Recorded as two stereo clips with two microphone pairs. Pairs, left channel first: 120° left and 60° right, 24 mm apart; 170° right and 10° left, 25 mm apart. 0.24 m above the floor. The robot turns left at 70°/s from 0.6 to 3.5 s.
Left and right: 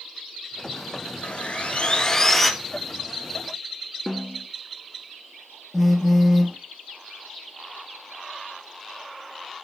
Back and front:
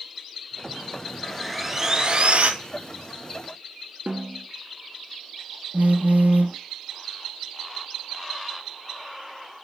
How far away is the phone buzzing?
About 1.0 m.